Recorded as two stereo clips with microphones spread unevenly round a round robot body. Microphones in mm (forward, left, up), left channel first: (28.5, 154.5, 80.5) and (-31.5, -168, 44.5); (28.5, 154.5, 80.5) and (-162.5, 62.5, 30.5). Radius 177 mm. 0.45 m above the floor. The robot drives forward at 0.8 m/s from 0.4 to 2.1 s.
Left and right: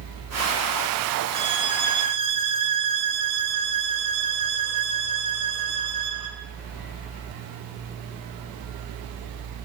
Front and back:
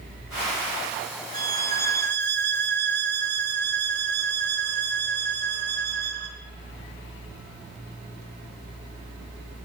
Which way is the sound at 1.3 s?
165° right.